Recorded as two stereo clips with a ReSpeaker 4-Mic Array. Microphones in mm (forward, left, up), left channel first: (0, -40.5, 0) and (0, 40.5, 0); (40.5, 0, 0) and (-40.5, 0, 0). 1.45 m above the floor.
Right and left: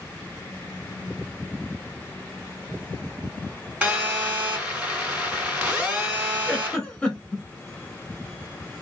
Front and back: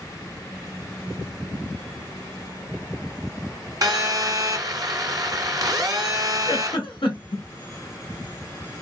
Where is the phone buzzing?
160° left, 2 m.